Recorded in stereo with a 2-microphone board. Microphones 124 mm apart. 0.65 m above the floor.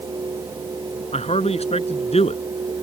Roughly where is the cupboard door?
I don't hear a cupboard door.